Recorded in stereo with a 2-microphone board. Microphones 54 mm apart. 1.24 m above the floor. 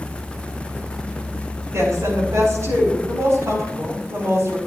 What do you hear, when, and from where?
1.7 s a woman speaking: 70° right (ahead or behind), 5 m